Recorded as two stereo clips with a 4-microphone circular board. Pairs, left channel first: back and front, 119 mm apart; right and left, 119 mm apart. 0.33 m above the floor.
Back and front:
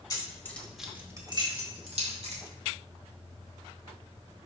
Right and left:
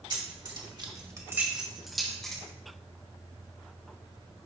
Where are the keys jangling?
125° left, 1.6 m; by 2.4 s 5° right, 2.5 m.